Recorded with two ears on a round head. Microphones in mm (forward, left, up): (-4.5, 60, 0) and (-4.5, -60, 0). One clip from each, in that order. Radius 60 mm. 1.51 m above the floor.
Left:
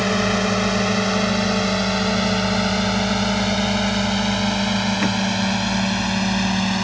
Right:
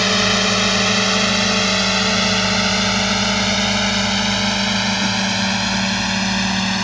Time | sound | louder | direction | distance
0.0 | a drone | right 4 dB | 60° right (ahead or behind) | ?